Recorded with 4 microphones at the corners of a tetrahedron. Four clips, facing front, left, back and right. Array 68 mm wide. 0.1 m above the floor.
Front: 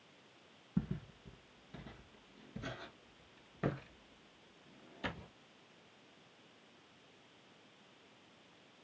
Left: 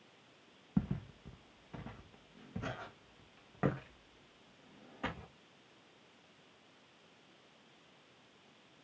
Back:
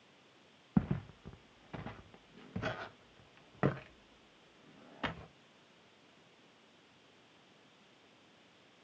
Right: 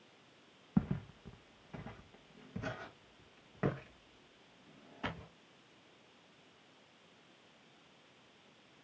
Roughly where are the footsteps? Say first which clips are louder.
Right 2 dB, back 6 dB; behind.